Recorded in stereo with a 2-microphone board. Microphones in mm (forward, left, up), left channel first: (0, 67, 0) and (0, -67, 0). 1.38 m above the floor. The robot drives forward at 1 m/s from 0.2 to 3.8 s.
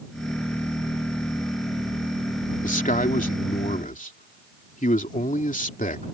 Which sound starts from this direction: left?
A man speaking, at 2.6 s.